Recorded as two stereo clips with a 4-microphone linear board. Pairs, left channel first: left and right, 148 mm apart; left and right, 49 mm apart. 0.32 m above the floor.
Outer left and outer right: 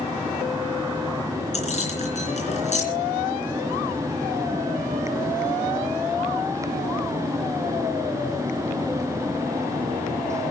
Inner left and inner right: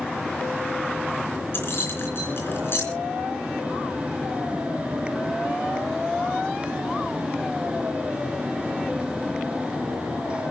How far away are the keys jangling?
About 3.5 m.